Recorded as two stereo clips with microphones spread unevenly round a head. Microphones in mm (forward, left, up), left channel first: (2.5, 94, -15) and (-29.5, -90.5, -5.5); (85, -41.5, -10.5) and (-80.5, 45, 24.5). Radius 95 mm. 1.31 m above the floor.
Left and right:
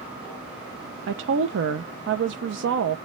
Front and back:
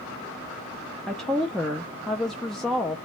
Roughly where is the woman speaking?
Behind right.